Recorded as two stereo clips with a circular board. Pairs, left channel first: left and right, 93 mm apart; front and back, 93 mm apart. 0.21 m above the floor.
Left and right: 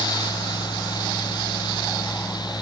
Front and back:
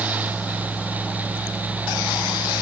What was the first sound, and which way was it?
Only background noise.